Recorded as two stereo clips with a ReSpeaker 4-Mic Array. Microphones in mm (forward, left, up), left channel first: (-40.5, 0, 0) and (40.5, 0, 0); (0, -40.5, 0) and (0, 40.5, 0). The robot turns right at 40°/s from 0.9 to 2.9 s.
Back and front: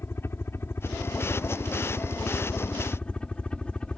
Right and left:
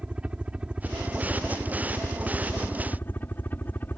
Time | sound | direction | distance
0.0 | a helicopter | 155° left | ?